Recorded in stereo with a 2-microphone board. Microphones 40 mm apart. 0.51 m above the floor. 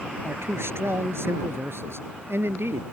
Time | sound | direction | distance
0.2 | a man speaking | 75° right (ahead or behind) | ?